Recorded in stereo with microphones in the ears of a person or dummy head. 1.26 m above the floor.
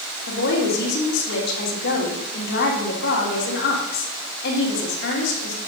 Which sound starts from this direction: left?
A woman speaking, at 0.3 s.